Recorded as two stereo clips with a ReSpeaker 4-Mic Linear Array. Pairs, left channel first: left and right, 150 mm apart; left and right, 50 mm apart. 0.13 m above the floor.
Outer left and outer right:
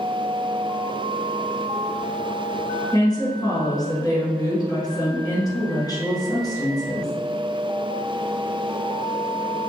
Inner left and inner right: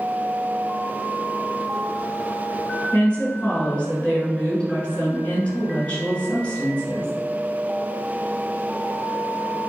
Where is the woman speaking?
25° left (ahead or behind), 1.7 m.